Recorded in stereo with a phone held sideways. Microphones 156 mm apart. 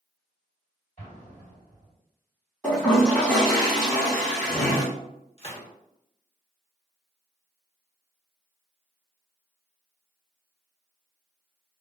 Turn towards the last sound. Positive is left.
turn(degrees=40)  # may be behind; listen again after turning